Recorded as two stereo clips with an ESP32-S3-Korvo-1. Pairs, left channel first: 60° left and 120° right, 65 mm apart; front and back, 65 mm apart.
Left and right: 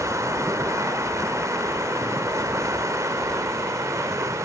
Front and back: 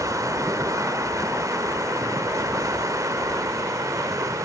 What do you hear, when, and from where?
0.0 s running water: 150° right, 0.9 m